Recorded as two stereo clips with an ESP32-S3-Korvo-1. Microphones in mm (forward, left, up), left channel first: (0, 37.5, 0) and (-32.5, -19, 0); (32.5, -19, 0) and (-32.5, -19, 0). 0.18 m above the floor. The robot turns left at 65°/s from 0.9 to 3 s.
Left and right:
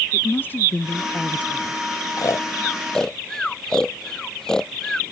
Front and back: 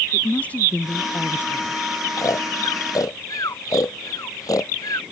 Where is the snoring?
30° left; by 5.0 s 20° right.